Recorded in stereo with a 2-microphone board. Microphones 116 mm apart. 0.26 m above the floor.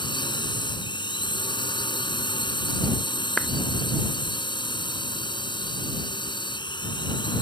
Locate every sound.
0.0 s a drone: 40° left (ahead or behind)
3.4 s a clap: 5° left (ahead or behind)